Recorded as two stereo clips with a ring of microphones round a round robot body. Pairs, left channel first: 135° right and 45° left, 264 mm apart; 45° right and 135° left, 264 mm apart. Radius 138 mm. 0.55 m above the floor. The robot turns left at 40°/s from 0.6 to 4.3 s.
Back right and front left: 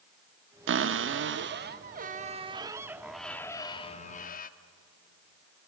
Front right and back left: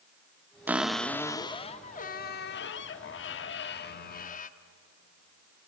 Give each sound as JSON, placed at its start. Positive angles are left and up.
{"t": 0.7, "sound": "a cupboard door", "azimuth_deg": 55, "distance_m": 0.8}